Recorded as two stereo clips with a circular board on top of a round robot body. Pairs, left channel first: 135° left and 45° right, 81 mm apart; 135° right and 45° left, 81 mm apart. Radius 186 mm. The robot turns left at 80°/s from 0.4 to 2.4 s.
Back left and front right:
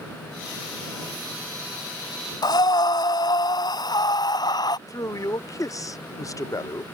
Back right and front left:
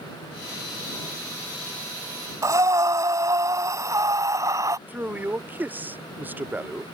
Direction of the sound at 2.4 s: 95° left.